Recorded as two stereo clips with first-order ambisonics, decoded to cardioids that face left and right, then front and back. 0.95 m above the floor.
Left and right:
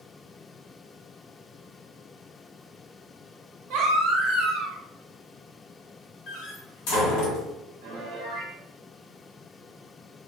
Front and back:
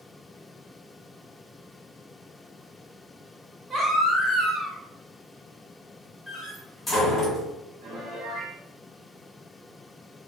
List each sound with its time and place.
3.7 s a baby crying: 100° right, 0.9 m
6.3 s a door slam: 80° left, 1.2 m
7.8 s a piano: 130° right, 0.8 m